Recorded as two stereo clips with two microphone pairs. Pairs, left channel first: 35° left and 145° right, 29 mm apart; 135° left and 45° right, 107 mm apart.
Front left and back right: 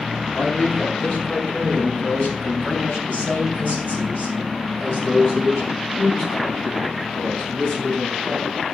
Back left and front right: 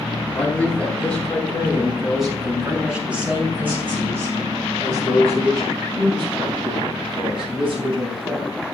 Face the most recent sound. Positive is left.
turn(degrees=-10)